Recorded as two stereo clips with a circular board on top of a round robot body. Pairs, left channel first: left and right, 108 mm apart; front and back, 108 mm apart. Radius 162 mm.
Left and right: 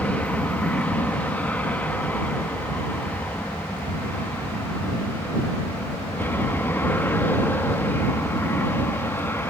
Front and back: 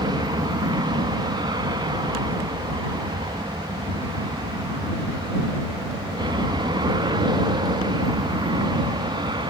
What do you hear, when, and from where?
0.0 s an aircraft: 160° left; by 9.5 s 155° left